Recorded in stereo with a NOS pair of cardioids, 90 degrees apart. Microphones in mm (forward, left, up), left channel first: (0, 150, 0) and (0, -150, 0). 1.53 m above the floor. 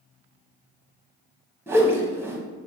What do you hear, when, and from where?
1.7 s a whoosh: 10° right, 0.9 m